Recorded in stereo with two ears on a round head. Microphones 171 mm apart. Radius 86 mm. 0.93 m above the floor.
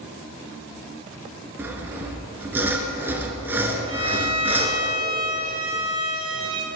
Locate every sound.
1.6 s sawing: 10° right (ahead or behind), 1.9 m
3.9 s a violin: 25° right (ahead or behind), 2 m